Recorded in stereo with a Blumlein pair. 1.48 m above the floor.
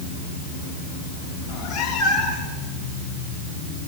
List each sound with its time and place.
1.4 s a cat meowing: 25° left, 4 m